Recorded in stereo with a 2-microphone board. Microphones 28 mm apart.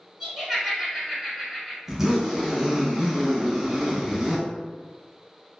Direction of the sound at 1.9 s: 15° right (ahead or behind).